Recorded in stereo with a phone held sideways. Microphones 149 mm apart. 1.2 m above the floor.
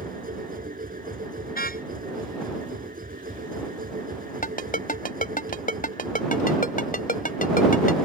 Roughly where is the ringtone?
Left.